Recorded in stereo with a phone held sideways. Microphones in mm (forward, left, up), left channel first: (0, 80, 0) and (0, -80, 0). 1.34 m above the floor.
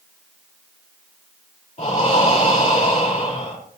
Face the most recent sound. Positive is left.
turn(degrees=45)  # may be behind; listen again after turning